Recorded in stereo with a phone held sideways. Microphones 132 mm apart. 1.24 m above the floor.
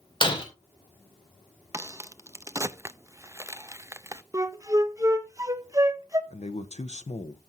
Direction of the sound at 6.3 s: 60° left (ahead or behind).